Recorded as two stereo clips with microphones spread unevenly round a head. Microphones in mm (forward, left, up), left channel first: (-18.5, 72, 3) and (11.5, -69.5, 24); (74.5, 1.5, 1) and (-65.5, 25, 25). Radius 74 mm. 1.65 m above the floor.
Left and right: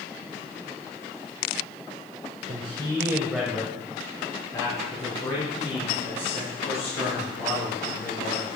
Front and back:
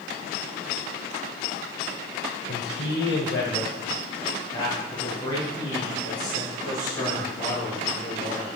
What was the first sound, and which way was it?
A man speaking, 35° right.